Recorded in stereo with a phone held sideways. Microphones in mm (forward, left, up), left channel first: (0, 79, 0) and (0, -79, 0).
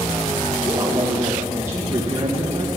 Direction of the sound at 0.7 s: 20° right (ahead or behind).